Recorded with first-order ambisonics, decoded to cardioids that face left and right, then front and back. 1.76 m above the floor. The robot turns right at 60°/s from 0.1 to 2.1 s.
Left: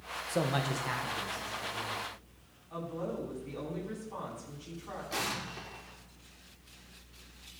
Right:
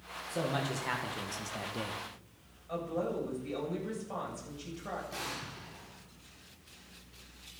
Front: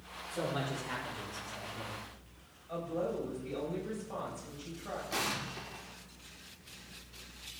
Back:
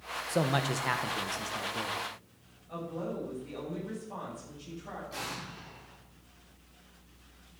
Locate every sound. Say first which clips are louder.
0.3 s a man speaking: left 2 dB, back 6 dB; 150° left, 1.6 m; by 2.0 s 105° right, 1.6 m
2.7 s a woman speaking: right 3 dB, front 2 dB; 70° right, 7.5 m
5.1 s an explosion: left 4 dB, front 6 dB; 40° left, 1.7 m